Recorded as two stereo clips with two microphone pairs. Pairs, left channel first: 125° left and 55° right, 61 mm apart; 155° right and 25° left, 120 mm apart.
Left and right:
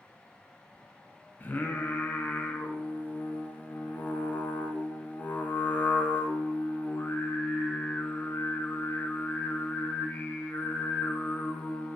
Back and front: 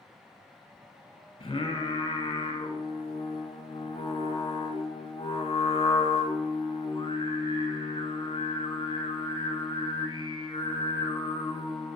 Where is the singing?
175° left, 0.7 m.